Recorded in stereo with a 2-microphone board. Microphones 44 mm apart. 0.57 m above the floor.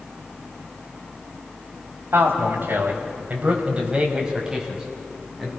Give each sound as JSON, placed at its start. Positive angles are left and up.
{"t": 2.1, "sound": "a man speaking", "side_deg": -70, "distance_m": 3.5}